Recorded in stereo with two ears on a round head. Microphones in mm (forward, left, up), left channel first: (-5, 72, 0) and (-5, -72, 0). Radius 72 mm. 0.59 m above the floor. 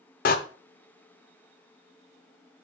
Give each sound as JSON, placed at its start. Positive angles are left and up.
{"t": 0.2, "sound": "a door slam", "side_deg": 60, "distance_m": 1.0}